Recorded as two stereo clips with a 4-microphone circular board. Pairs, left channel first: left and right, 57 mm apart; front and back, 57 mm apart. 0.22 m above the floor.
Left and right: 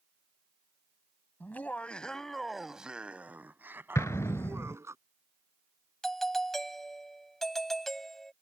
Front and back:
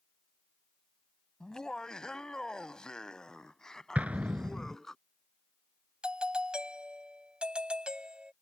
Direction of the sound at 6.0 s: 160° left.